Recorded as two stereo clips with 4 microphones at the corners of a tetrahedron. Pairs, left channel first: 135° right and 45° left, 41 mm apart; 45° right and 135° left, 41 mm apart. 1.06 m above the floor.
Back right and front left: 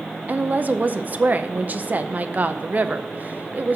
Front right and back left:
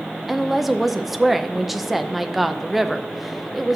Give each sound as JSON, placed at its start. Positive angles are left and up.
{"t": 0.3, "sound": "a woman speaking", "azimuth_deg": 50, "distance_m": 0.5}